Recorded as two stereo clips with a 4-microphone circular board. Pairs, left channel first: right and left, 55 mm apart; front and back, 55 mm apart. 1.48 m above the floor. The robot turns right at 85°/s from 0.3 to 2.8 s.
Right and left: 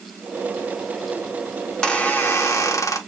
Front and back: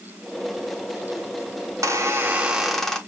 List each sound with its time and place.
1.7 s a squeak: straight behind, 0.9 m; by 3.0 s 85° right, 0.9 m